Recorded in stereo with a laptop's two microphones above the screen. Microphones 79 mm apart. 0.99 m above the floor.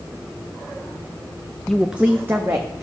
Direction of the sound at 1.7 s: 5° left (ahead or behind).